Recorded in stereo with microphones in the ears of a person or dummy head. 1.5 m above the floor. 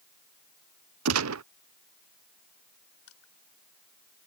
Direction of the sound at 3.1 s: 90° left.